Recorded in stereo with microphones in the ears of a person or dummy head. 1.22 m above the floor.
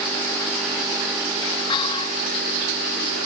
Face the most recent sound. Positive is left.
turn(degrees=25)  # may be behind; listen again after turning